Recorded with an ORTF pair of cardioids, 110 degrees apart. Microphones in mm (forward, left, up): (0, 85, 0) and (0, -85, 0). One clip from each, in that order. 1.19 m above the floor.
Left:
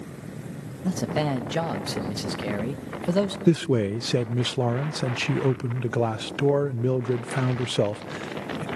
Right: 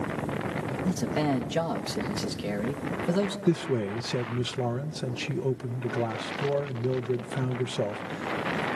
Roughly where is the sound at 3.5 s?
Ahead left.